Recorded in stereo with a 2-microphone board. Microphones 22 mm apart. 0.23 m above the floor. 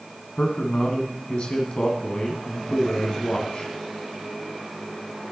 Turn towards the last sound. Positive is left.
turn(degrees=50)  # may be behind; listen again after turning